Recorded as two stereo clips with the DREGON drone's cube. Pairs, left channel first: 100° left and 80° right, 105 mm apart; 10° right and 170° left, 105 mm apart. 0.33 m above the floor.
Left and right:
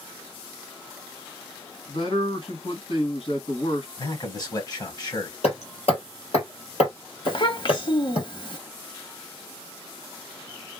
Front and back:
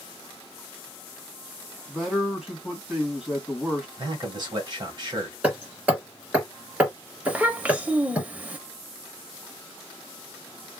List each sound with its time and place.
1.9 s a man speaking: 85° left, 2.5 m
4.0 s a man speaking: 140° left, 1.5 m
5.4 s hammering: 95° left, 2.5 m
7.2 s a child speaking: 95° left, 0.7 m